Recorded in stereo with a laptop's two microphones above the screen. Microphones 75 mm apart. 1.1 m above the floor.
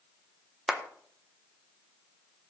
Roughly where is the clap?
Centre.